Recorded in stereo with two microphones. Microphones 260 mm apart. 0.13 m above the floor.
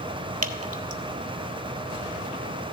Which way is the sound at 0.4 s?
70° right (ahead or behind).